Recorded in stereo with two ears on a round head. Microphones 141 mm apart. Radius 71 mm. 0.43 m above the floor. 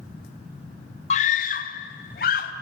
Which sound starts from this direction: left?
A scream, at 1.1 s.